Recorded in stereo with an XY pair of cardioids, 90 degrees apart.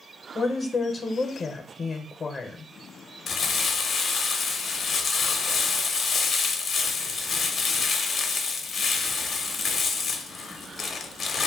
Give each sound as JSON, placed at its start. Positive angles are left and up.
{"t": 0.3, "sound": "a woman speaking", "azimuth_deg": 35, "distance_m": 0.6}
{"t": 3.3, "sound": "crumpling", "azimuth_deg": 55, "distance_m": 0.6}